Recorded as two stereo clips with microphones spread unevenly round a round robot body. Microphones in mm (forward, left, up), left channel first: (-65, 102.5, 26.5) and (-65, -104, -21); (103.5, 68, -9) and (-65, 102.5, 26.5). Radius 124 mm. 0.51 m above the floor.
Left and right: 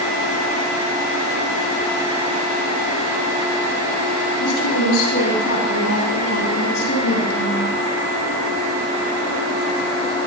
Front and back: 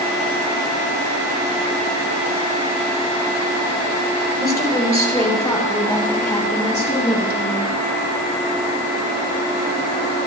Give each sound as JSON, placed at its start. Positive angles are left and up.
{"t": 4.4, "sound": "a woman speaking", "azimuth_deg": 60, "distance_m": 9.0}